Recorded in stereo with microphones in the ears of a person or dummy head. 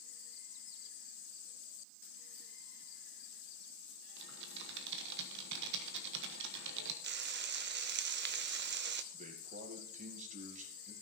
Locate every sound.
4.2 s typing on a keyboard: 65° right (ahead or behind), 1.3 m
7.0 s frying: 55° right (ahead or behind), 0.5 m
9.1 s a man speaking: 40° right (ahead or behind), 2 m